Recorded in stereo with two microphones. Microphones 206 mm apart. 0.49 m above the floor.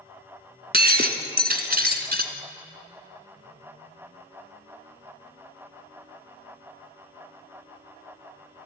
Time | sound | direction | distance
0.7 | breaking glass | 50° right (ahead or behind) | 1.5 m